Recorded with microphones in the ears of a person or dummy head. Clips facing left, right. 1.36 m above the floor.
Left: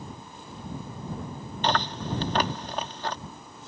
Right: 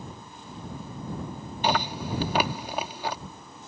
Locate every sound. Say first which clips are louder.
1.6 s chewing: right 1 dB; 10° right (ahead or behind)